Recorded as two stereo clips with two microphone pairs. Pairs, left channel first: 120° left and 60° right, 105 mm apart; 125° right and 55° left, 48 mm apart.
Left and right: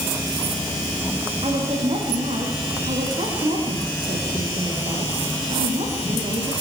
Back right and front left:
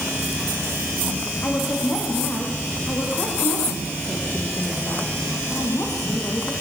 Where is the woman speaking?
75° right, 10 m.